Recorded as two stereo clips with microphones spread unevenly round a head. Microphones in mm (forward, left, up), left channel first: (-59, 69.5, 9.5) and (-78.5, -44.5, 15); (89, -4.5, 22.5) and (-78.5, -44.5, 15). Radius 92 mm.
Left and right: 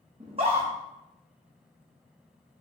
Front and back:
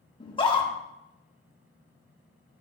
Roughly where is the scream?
Ahead right.